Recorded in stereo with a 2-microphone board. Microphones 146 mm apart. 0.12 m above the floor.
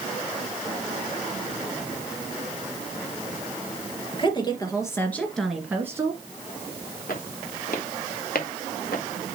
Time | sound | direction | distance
4.1 | a woman speaking | 35° left (ahead or behind) | 2.5 m
7.1 | footsteps | 75° left (ahead or behind) | 3 m